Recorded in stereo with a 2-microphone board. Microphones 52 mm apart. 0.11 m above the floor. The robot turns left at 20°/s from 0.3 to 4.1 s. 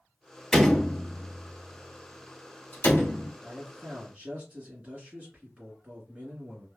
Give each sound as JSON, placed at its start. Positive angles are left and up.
{"t": 0.5, "sound": "a door slam", "side_deg": 10, "distance_m": 1.4}
{"t": 3.4, "sound": "a man speaking", "side_deg": -15, "distance_m": 1.8}